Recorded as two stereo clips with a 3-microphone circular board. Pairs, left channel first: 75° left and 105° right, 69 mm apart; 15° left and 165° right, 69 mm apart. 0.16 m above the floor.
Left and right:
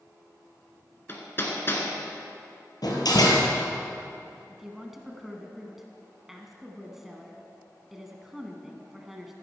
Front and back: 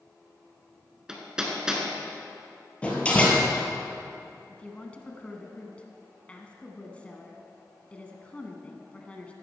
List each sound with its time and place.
1.1 s hammering: 120° left, 1.7 m
2.8 s a door slam: 85° left, 2 m
4.5 s a woman speaking: 25° right, 1.2 m